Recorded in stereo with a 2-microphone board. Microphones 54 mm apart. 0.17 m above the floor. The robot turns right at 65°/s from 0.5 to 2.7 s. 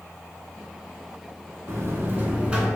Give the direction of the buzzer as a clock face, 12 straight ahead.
3 o'clock.